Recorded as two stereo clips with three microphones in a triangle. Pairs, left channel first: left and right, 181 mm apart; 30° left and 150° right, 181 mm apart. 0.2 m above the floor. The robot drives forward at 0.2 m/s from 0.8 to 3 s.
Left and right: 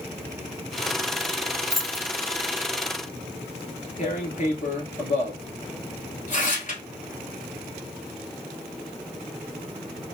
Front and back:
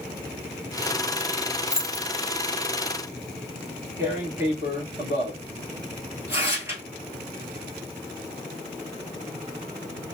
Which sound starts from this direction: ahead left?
Keys jangling, at 1.7 s.